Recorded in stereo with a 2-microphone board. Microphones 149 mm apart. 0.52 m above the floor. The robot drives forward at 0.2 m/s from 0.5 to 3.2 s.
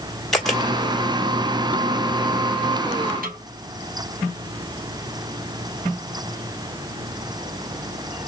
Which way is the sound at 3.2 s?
80° right.